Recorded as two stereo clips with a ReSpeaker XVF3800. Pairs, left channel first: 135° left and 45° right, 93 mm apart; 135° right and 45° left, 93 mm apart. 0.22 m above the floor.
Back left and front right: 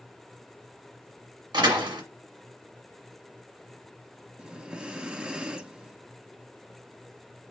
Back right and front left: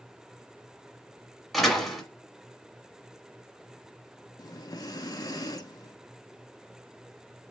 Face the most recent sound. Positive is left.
turn(degrees=-120)